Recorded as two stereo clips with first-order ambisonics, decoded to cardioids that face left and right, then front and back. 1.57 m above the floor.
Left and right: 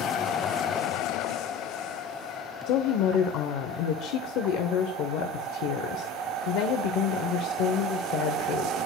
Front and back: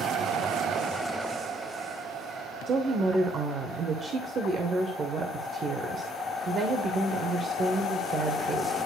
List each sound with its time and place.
2.7 s a woman speaking: 115° left, 0.7 m